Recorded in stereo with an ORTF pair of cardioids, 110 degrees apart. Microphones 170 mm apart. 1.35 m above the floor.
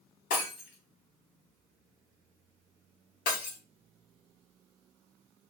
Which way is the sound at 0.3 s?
60° left.